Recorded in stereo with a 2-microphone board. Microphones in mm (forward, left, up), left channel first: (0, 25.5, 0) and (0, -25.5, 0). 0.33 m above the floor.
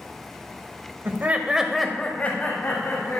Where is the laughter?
45° right (ahead or behind), 1.2 m; by 3.2 s 50° left (ahead or behind), 2.5 m.